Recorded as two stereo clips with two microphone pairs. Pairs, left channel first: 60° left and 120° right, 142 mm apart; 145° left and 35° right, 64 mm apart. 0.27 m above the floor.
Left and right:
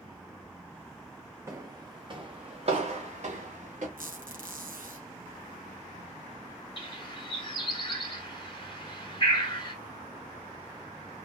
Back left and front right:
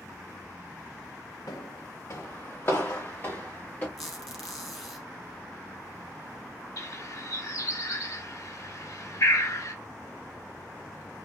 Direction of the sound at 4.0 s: 125° right.